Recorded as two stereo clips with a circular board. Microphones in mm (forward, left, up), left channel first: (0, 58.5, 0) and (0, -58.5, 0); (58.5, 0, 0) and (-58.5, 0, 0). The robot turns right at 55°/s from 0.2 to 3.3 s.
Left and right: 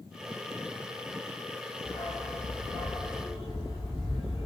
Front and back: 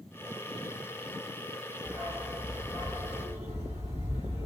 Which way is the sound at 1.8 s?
105° left.